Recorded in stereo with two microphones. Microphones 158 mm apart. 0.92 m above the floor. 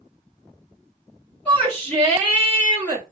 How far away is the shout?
About 2 m.